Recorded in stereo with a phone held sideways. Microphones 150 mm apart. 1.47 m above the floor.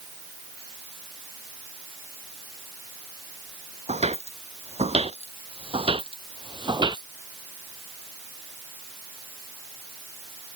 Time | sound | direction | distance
3.9 | footsteps | 50° right (ahead or behind) | ?